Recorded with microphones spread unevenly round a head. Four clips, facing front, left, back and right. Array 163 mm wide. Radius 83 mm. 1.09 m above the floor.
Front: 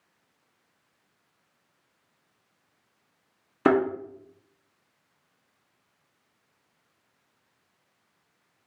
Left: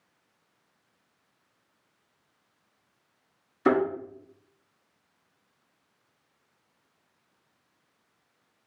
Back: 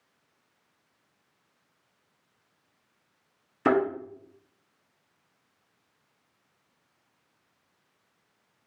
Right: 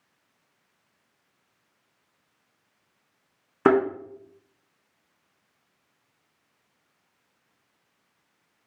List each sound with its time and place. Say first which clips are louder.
3.6 s a thud: right 4 dB, front 2 dB; 70° right, 1.3 m